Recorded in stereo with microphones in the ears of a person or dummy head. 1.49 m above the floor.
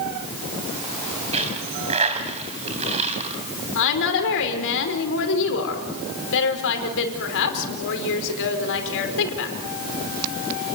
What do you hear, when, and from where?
1.3 s a dropped coin: 30° right (ahead or behind), 3 m
3.8 s a woman speaking: 70° left (ahead or behind), 5 m